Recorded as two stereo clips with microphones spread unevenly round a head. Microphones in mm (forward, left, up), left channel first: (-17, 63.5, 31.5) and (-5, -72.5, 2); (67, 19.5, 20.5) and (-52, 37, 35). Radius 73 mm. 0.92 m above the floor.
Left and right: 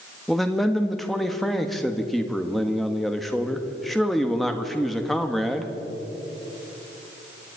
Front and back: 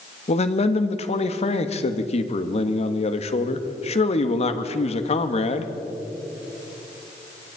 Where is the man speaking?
Straight ahead, 1.6 m.